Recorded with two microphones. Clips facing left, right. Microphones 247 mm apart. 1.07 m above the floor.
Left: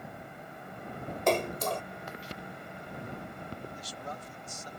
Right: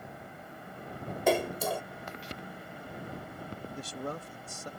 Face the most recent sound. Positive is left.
turn(degrees=-60)  # may be behind; listen again after turning